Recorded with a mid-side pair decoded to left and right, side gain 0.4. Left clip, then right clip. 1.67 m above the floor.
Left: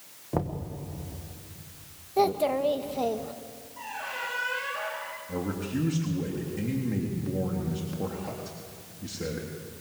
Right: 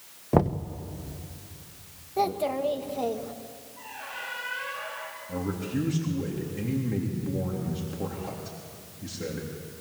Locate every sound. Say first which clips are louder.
0.3 s knocking: right 7 dB; 55° right, 1.3 m
2.2 s a child speaking: left 2 dB; 25° left, 1.8 m
3.8 s a squeak: left 4 dB; 50° left, 9 m
5.3 s a man speaking: right 1 dB; 5° left, 4 m